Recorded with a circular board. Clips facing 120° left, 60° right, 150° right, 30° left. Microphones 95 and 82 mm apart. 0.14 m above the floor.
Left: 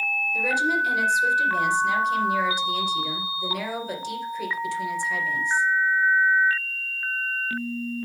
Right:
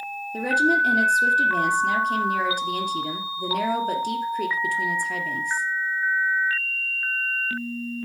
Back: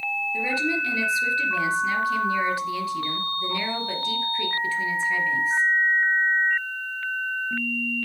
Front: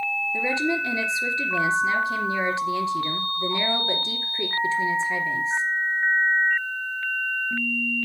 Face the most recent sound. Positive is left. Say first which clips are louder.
# right 4 dB, front 2 dB
turn(degrees=-30)